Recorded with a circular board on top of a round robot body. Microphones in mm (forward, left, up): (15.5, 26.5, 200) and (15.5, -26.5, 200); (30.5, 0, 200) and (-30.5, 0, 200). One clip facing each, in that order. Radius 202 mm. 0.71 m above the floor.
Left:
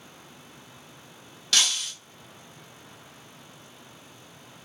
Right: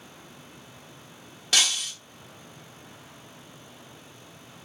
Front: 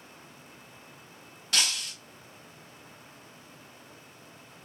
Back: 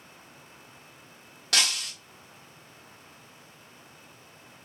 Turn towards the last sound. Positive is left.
turn(degrees=-160)